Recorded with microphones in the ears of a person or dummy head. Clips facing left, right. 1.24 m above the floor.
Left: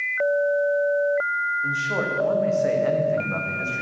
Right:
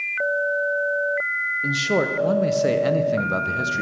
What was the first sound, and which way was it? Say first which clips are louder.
A man speaking: right 6 dB; 50° right (ahead or behind).